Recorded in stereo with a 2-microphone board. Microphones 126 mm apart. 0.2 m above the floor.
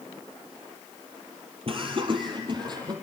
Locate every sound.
1.7 s laughter: 45° right (ahead or behind), 5 m; by 2.9 s 35° right (ahead or behind), 6 m